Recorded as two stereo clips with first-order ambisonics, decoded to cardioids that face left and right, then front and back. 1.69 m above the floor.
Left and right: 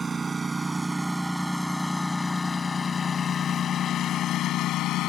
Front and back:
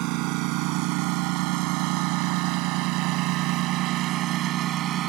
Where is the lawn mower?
160° right; by 5.1 s 130° left.